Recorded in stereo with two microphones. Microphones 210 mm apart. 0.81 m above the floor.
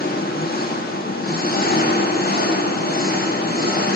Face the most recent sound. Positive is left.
turn(degrees=45)  # may be behind; listen again after turning